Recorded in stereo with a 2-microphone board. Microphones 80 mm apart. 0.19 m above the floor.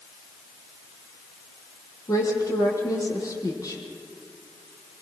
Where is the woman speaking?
45° left (ahead or behind), 6 m.